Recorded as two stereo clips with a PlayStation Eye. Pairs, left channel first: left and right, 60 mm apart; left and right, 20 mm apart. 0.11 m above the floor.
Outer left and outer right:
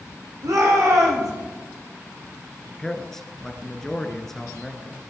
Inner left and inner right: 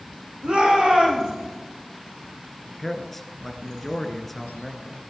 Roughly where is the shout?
Right.